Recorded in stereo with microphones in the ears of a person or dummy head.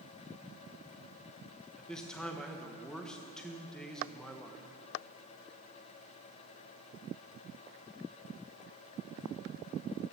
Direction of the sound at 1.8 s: Centre (ahead or behind).